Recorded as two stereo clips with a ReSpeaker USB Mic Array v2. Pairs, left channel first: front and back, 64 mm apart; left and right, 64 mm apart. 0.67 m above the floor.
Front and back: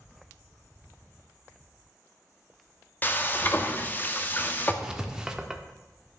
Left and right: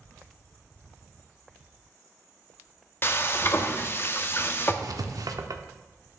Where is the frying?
50° left, 0.6 m.